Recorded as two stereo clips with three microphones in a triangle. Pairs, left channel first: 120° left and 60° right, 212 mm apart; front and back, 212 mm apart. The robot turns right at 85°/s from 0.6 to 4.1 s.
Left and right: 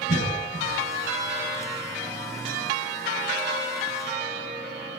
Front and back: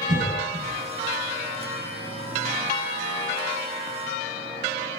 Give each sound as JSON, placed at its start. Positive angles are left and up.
{"t": 0.1, "sound": "a cough", "azimuth_deg": 135, "distance_m": 2.0}